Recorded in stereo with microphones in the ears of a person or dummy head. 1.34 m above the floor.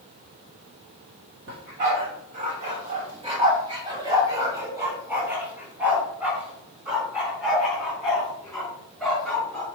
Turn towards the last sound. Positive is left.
turn(degrees=10)  # may be behind; listen again after turning